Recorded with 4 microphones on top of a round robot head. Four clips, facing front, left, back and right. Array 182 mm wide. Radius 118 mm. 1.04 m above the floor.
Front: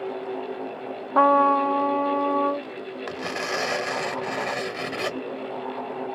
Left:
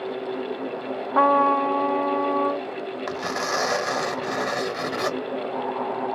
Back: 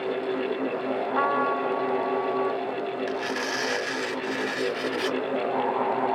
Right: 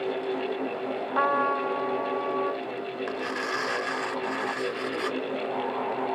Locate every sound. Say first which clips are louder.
1.1 s a trumpet: left 7 dB, front 9 dB; 35° left
3.1 s tearing paper: left 6 dB, back 1 dB; 60° left